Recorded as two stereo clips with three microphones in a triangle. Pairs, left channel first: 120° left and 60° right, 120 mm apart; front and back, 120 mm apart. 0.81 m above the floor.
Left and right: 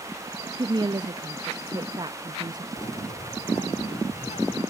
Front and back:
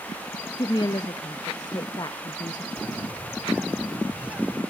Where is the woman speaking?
30° right, 0.6 m.